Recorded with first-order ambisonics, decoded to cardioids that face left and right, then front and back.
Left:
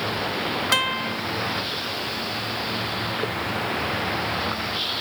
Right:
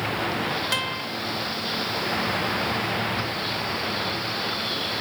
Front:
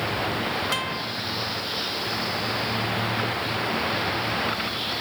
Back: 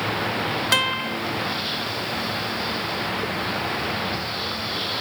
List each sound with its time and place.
0.7 s a guitar: 145° left, 0.7 m